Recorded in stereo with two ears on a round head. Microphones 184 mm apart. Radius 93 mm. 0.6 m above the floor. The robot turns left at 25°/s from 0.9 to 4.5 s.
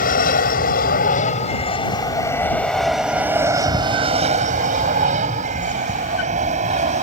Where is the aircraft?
40° left (ahead or behind); by 7.0 s 35° right (ahead or behind).